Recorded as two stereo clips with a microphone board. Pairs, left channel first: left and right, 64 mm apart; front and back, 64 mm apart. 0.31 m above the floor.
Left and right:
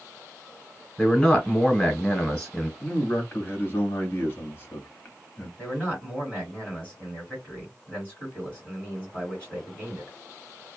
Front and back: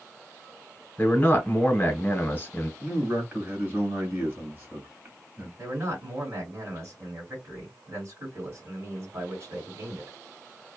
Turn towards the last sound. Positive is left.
turn(degrees=155)